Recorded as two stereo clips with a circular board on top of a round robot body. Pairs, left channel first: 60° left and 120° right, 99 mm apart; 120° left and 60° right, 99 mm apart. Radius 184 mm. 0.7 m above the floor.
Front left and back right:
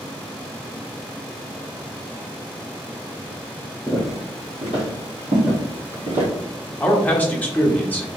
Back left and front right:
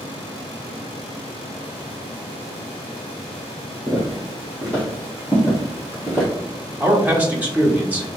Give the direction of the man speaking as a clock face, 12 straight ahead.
12 o'clock.